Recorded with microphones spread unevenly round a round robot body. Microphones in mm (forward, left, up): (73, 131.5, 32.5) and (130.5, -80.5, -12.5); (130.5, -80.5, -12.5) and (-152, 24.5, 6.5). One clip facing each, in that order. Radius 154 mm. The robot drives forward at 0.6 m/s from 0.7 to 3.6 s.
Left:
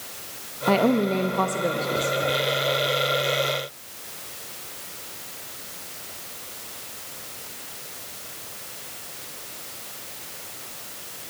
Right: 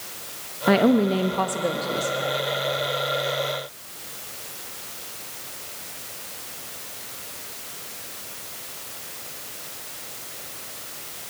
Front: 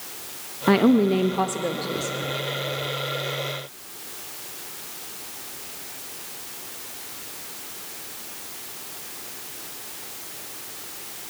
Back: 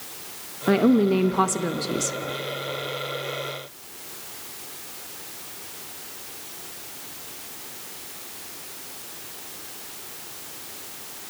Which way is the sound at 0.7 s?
75° right.